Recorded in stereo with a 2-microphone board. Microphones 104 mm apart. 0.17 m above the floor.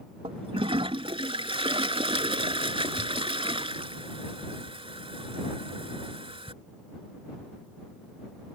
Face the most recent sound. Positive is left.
turn(degrees=-65)  # may be behind; listen again after turning